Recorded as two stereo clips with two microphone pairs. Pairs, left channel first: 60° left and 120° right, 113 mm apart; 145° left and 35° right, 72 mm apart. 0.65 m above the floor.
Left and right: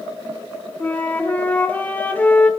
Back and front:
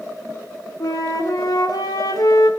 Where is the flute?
135° left, 1.5 m.